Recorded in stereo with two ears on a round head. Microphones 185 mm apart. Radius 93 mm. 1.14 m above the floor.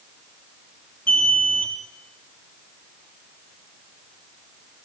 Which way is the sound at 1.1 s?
5° left (ahead or behind).